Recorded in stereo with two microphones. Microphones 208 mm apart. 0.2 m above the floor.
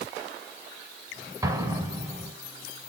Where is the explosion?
15° right (ahead or behind), 1.0 m.